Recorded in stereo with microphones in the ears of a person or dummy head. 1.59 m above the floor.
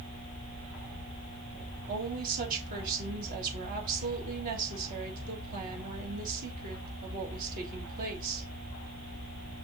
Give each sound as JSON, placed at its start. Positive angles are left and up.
{"t": 1.9, "sound": "a woman speaking", "side_deg": -45, "distance_m": 3.0}